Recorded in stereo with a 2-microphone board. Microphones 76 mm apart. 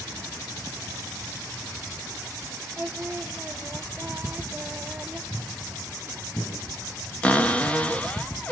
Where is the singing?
20° right (ahead or behind), 0.7 m.